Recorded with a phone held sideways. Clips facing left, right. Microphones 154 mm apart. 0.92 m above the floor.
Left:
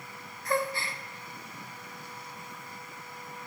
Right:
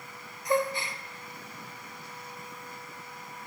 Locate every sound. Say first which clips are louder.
0.5 s a gasp: right 3 dB; 15° right (ahead or behind), 0.6 m